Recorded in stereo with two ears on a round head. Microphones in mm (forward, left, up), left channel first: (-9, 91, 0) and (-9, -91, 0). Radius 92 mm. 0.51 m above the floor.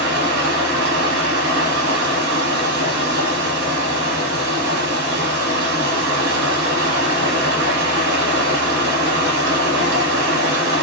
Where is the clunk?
I don't hear a clunk.